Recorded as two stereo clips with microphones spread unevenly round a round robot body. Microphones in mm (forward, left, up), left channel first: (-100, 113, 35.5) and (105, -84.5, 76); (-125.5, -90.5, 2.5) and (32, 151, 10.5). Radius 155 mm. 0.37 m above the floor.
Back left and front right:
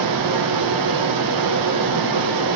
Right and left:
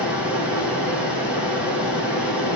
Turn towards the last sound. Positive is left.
turn(degrees=-30)